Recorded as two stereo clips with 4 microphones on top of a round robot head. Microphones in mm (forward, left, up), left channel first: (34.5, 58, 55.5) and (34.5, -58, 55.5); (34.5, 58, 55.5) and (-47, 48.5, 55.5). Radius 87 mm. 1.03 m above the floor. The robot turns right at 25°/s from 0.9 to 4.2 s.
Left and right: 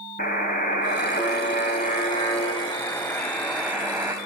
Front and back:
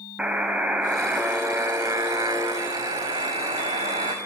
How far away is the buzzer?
About 1.4 m.